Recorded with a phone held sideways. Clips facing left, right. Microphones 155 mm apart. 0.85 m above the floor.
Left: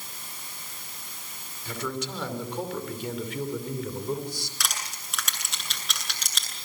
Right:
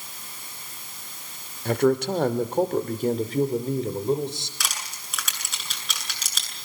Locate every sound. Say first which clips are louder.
1.6 s a man speaking: right 12 dB; 60° right (ahead or behind), 2.5 m; by 4.5 s 20° right (ahead or behind), 3 m
4.6 s crushing: even; centre (ahead or behind), 8 m